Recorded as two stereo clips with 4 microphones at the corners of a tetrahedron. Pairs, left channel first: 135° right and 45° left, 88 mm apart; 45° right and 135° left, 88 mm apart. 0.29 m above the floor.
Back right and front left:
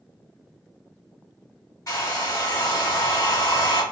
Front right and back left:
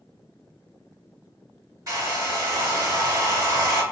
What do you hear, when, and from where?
1.9 s a hair dryer: straight behind, 1.9 m